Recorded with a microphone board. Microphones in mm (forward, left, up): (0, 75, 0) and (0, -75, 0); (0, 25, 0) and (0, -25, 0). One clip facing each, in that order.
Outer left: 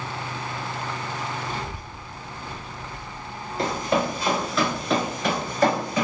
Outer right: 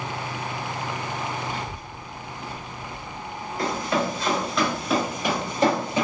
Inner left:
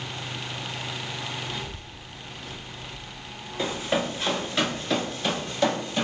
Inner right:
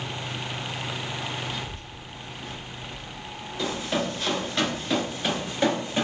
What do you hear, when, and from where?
1.5 s a child speaking: 35° left (ahead or behind), 0.8 m; by 4.4 s 80° right, 2 m
3.6 s running footsteps: 25° left (ahead or behind), 1.4 m; by 6.0 s 30° right (ahead or behind), 1.6 m